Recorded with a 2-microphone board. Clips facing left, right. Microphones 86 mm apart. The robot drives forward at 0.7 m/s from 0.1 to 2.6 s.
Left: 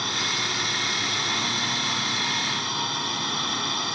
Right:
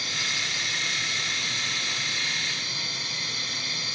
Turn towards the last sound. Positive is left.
turn(degrees=60)  # may be behind; listen again after turning